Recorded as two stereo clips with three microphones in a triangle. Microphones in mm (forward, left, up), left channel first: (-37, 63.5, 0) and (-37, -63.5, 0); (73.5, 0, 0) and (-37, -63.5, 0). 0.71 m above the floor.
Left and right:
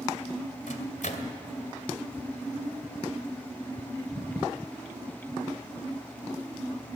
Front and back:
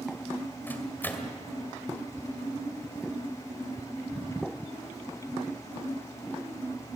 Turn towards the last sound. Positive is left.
turn(degrees=105)